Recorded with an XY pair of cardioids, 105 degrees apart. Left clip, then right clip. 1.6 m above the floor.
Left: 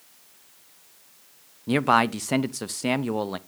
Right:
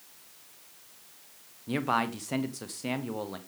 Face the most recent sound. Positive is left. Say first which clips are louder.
# left 8 dB
turn(degrees=55)